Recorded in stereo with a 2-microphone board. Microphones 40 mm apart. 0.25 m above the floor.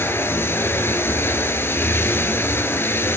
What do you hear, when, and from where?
0.0 s running water: 75° left (ahead or behind), 2.5 m